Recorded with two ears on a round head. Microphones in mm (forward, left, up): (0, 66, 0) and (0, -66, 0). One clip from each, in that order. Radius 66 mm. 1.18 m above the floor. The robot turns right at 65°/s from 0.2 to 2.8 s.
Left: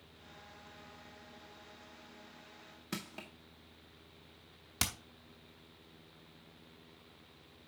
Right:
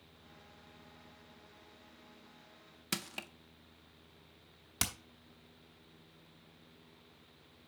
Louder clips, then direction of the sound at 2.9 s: Right 5 dB; 65° right (ahead or behind).